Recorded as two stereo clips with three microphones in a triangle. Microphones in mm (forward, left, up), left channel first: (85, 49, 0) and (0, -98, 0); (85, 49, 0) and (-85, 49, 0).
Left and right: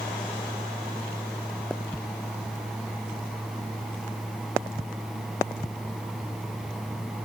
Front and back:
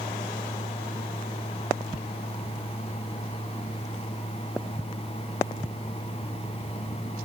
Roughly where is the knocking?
I don't hear knocking.